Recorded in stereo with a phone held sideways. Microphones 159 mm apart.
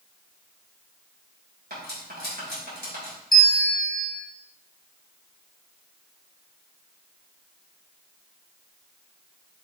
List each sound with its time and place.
1.7 s cutlery clinking: 80° right, 3.5 m
3.3 s a bell: 60° left (ahead or behind), 1.0 m